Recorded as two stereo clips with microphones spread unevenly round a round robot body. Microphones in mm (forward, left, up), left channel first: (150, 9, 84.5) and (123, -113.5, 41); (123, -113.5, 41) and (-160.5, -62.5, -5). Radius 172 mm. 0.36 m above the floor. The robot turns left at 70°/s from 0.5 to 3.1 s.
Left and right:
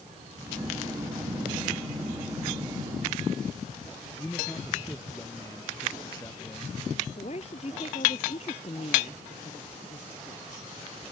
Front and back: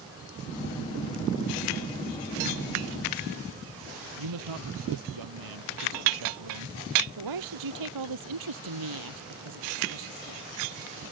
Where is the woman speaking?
145° left.